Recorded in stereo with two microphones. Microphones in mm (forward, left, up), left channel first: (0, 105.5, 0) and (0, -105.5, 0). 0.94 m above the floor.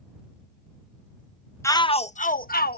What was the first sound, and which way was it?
A shout, 15° left (ahead or behind).